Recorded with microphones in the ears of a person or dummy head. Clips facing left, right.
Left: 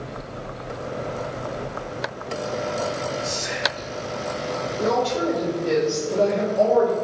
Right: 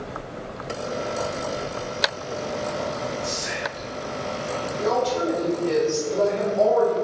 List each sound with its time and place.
3.2 s whispering: 10° left (ahead or behind), 1.8 m
4.8 s a woman speaking: 25° left (ahead or behind), 1.5 m